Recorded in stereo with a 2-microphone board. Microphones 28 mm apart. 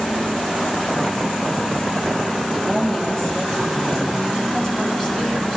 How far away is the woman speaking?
About 2.5 m.